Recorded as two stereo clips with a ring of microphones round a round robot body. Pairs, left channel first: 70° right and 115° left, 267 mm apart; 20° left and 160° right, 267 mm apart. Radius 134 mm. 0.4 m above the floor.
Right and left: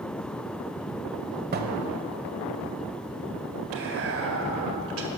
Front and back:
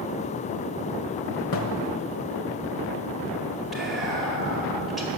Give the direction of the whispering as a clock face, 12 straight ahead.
8 o'clock.